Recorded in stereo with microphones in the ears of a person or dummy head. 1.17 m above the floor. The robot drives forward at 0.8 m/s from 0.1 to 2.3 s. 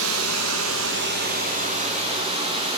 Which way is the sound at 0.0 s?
75° right (ahead or behind).